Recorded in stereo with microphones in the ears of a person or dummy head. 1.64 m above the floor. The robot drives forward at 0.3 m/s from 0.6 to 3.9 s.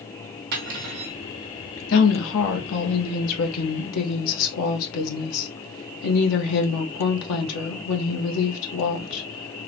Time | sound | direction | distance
0.5 | cutlery clinking | 55° right (ahead or behind) | 1.3 m
1.9 | a woman speaking | 70° left (ahead or behind) | 1.3 m